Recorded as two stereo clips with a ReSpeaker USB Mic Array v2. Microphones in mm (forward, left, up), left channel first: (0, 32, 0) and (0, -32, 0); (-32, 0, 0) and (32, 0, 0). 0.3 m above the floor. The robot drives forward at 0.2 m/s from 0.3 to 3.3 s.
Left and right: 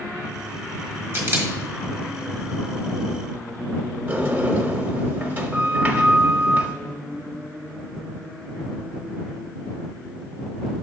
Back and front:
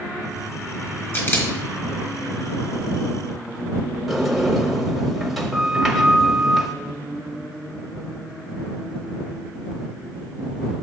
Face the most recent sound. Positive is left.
turn(degrees=-85)